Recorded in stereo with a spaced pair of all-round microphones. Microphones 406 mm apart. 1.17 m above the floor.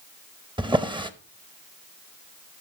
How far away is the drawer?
About 0.6 m.